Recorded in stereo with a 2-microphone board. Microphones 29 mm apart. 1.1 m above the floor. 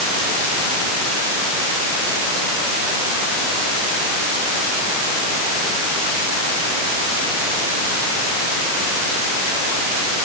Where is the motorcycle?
I don't hear a motorcycle.